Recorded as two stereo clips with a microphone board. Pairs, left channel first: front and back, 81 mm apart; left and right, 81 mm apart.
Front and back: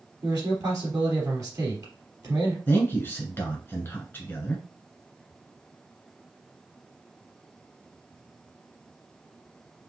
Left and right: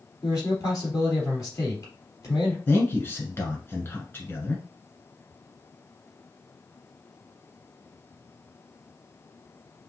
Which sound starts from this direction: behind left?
A man speaking, at 0.2 s.